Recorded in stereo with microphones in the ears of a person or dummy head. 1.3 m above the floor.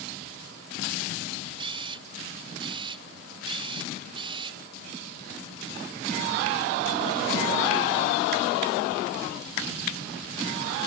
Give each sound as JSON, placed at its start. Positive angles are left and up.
{"t": 1.6, "sound": "a camera shutter", "side_deg": -30}